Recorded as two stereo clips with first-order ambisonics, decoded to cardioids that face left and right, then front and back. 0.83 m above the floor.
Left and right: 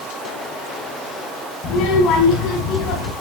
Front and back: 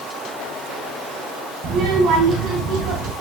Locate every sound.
1.6 s a child speaking: 140° left, 5 m; by 3.1 s 130° left, 4.5 m